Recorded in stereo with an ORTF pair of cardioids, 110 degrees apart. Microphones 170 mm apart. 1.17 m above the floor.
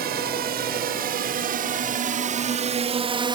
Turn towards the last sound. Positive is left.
turn(degrees=-30)